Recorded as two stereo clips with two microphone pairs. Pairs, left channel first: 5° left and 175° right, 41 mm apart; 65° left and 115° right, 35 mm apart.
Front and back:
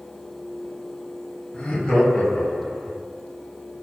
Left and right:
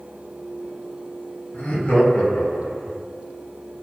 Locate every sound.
1.5 s laughter: 40° left, 1.2 m; by 3.0 s 100° left, 0.9 m